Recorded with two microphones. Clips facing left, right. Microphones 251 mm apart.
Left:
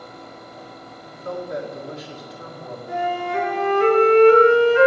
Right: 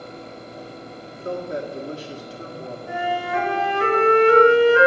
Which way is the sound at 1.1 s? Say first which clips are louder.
Right 1 dB; 30° right (ahead or behind).